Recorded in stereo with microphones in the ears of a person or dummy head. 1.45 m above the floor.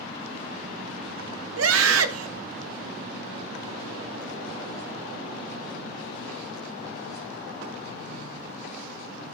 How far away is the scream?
About 0.9 m.